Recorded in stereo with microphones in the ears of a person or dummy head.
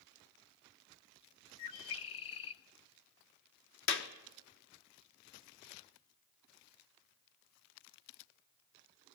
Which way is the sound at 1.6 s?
30° left (ahead or behind).